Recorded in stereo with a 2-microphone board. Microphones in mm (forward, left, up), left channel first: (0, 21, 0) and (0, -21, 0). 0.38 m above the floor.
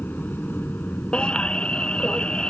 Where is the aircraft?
50° left (ahead or behind); by 2.5 s 45° left (ahead or behind).